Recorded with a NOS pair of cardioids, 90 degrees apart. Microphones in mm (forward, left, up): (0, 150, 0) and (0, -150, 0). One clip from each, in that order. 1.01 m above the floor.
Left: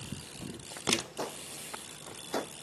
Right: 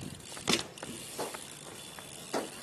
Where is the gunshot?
Straight ahead.